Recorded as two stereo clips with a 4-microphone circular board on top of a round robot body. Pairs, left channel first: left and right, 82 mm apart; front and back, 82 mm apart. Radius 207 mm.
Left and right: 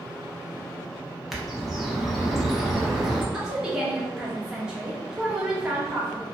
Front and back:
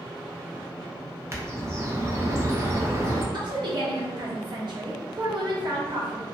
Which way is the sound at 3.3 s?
170° right.